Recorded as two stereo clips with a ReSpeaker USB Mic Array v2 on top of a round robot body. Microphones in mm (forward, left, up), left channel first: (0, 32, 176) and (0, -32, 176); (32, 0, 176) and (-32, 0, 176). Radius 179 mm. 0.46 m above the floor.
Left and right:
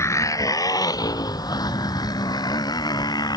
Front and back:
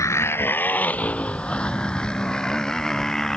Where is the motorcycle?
40° left; by 3.4 s 85° left.